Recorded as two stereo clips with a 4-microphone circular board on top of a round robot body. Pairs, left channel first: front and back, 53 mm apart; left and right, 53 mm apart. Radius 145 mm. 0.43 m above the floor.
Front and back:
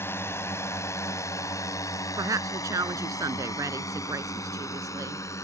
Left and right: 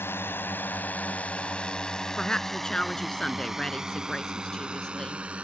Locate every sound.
0.0 s a drone: 45° left; by 5.5 s 20° right
2.2 s a woman speaking: 165° left